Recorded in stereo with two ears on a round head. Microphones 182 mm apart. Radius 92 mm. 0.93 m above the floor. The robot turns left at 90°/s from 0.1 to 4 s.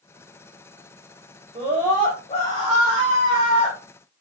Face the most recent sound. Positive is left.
turn(degrees=-5)